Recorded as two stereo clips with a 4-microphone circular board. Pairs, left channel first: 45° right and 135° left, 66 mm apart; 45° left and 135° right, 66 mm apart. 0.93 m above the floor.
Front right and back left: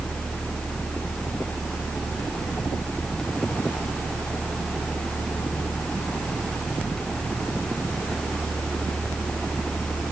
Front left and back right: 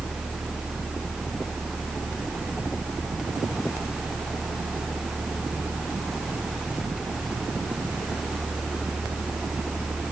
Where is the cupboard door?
No cupboard door in this recording.